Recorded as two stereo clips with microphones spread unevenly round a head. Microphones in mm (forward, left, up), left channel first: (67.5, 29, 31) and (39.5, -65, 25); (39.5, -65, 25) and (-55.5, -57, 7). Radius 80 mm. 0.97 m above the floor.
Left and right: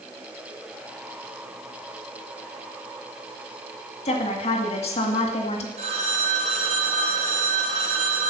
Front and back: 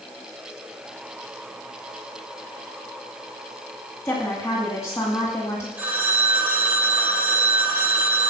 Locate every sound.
4.0 s a woman speaking: 70° left, 2 m
5.8 s a phone ringing: 110° right, 3.5 m